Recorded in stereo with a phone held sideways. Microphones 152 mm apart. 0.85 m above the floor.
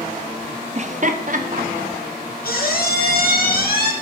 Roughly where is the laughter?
Right.